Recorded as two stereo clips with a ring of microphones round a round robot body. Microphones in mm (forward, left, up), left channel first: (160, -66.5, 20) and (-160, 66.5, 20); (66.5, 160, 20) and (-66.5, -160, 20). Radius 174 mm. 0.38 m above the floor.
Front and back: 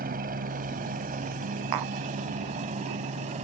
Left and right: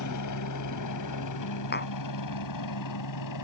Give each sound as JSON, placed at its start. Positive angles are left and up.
{"t": 0.0, "sound": "a helicopter", "azimuth_deg": 95}
{"t": 1.7, "sound": "tapping", "azimuth_deg": 130}